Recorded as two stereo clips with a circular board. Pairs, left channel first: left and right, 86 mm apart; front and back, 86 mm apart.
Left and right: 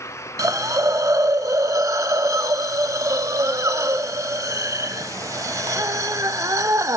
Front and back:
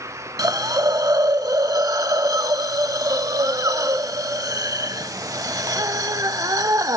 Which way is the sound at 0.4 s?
135° right.